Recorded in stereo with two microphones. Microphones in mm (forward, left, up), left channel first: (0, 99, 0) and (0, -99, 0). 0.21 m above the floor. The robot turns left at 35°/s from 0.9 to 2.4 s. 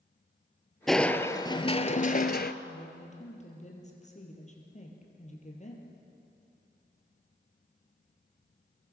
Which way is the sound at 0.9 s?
Straight behind.